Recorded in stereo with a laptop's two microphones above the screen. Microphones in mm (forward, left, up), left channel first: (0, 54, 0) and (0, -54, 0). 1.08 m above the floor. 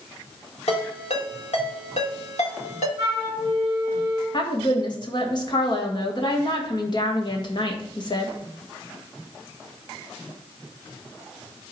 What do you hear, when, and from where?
0.7 s a ringtone: 85° left, 2 m
3.0 s a flute: 30° right (ahead or behind), 5.5 m
4.3 s a woman speaking: 45° left (ahead or behind), 1.5 m